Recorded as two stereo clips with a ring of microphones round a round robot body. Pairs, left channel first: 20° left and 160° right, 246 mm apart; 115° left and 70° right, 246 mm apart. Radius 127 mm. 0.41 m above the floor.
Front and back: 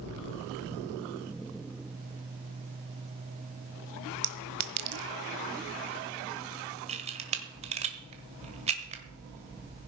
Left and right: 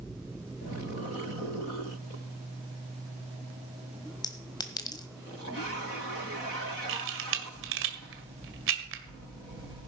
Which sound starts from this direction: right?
A camera shutter, at 6.9 s.